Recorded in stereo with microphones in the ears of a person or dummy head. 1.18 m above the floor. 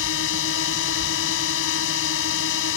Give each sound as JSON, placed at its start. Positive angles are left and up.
{"t": 0.0, "sound": "a drone", "side_deg": 75}